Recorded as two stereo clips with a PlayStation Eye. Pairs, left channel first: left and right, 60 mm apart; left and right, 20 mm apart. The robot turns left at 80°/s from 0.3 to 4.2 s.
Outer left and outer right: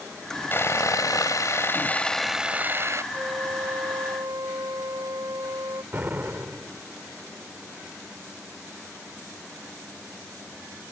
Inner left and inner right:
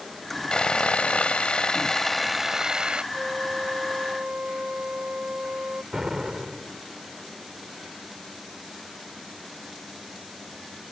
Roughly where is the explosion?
Right.